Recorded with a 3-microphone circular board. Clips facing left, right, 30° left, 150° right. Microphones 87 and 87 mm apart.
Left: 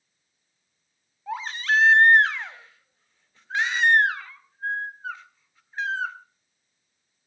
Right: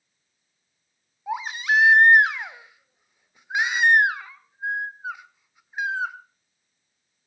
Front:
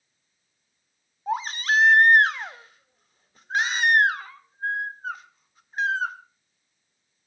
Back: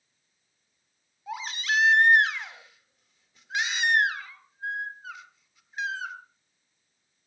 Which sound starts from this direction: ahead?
A baby crying, at 1.3 s.